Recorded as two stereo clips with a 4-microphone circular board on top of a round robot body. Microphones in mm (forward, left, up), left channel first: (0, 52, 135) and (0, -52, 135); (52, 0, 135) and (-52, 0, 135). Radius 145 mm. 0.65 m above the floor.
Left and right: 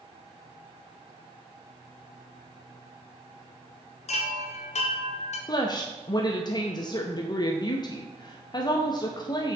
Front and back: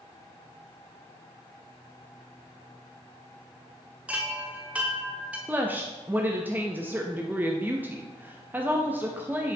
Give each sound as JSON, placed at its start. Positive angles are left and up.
{"t": 4.1, "sound": "a chime", "azimuth_deg": 100, "distance_m": 0.7}
{"t": 5.5, "sound": "a woman speaking", "azimuth_deg": 115, "distance_m": 0.8}